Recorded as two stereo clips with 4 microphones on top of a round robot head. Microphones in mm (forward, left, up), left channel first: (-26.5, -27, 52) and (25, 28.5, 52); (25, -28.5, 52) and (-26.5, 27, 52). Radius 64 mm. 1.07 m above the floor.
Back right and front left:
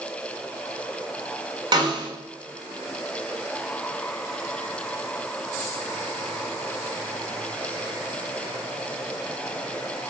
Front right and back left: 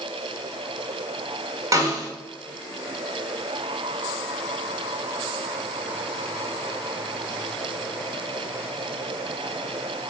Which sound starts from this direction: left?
A snare drum, at 1.7 s.